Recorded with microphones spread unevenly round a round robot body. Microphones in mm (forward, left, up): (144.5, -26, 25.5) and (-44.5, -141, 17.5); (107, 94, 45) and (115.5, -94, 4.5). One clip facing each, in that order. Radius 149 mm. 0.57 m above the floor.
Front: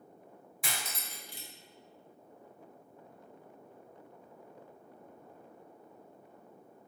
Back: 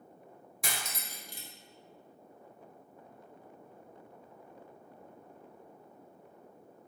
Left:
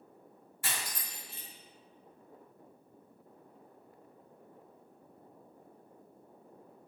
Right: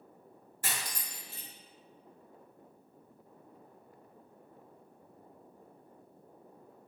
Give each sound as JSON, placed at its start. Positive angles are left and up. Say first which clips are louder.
{"t": 0.6, "sound": "cutlery clinking", "louder": "back 1 dB, right 1 dB", "azimuth_deg": -110, "distance_m": 0.6}